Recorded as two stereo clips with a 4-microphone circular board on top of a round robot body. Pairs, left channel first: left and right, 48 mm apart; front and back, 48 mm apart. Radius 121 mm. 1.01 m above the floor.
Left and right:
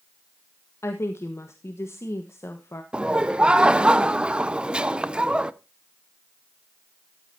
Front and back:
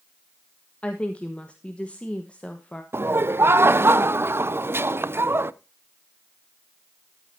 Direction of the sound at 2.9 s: 155° right.